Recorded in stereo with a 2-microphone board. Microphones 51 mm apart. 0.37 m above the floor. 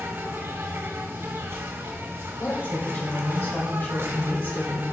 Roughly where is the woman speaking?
Left.